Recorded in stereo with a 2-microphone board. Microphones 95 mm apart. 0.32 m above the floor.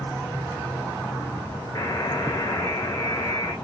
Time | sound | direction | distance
1.8 | a buzzer | 40° left (ahead or behind) | 1.0 m